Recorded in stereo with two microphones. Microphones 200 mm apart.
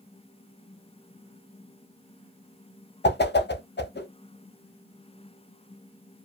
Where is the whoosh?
55° left (ahead or behind), 0.5 m.